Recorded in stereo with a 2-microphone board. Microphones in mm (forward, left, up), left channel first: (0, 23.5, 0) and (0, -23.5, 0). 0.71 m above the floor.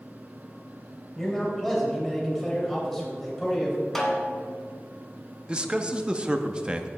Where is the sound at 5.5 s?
20° right (ahead or behind), 0.6 m.